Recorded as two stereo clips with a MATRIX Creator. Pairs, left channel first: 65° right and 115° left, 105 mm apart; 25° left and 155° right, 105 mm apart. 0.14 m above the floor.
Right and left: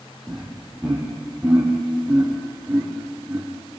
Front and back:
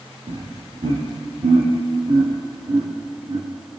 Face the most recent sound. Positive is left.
turn(degrees=-175)